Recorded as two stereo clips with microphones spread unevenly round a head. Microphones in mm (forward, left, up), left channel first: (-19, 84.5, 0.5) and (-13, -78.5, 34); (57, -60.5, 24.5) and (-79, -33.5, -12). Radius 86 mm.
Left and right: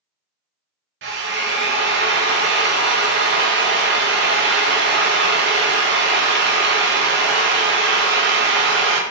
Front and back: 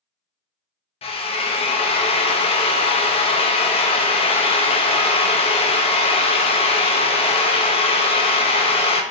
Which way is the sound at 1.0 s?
65° right.